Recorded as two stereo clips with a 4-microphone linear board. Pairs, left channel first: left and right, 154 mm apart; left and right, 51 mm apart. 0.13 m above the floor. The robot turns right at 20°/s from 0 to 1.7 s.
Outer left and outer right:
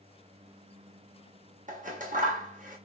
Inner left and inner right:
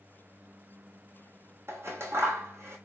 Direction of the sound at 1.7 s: 55° right (ahead or behind).